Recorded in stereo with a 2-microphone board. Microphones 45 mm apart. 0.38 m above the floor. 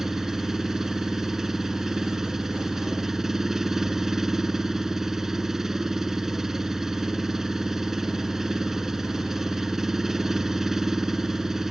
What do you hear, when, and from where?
0.0 s an engine running: 10° right (ahead or behind)